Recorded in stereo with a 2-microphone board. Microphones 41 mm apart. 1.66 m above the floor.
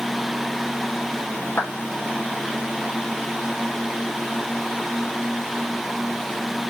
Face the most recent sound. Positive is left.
turn(degrees=65)  # may be behind; listen again after turning